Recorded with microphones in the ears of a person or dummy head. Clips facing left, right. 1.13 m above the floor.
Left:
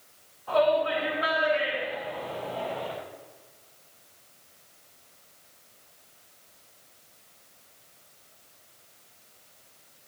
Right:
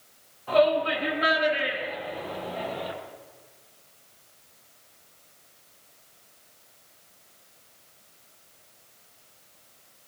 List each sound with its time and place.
0.5 s a shout: 35° right (ahead or behind), 6.5 m; by 2.9 s 20° right (ahead or behind), 8 m